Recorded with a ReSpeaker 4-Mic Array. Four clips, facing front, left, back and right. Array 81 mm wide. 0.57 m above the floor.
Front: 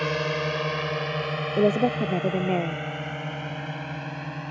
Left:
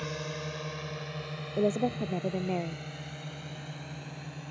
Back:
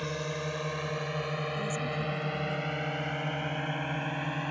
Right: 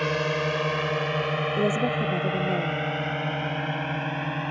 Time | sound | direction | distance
0.0 | a drone | 55° right | ?
1.6 | a woman speaking | 5° right | ?